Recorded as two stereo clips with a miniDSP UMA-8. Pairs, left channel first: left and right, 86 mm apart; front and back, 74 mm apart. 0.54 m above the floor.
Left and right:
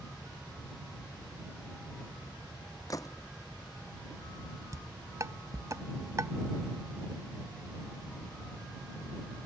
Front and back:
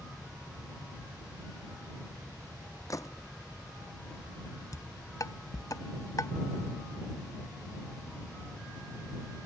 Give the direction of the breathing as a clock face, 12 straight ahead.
No breathing in this recording.